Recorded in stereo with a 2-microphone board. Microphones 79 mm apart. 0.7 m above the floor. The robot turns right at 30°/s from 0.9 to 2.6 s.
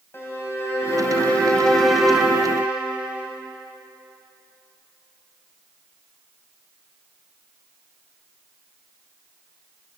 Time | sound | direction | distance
0.1 | a violin | 150° left | 2.5 m